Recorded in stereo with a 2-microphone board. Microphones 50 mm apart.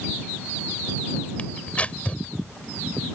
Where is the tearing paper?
30° left (ahead or behind).